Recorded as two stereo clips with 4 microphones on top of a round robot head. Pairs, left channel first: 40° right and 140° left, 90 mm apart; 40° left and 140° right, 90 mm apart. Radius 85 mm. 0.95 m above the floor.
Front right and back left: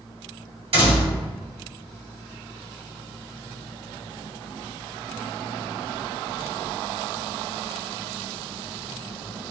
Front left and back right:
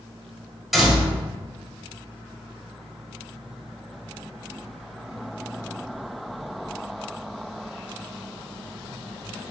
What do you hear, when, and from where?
0.7 s a door slam: 135° left, 1.4 m